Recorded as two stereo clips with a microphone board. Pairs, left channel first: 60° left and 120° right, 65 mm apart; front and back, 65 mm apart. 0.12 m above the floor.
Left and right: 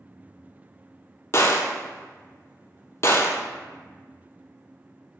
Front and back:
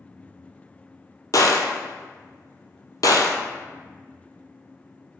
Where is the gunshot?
15° left, 0.6 m.